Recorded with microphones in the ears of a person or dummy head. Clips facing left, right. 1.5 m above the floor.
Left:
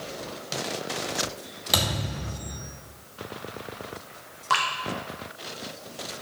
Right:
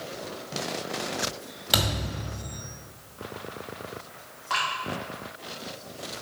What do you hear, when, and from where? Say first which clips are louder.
1.7 s a thud: even; centre (ahead or behind), 1.9 m
4.5 s dripping: left 4 dB; 60° left (ahead or behind), 1.2 m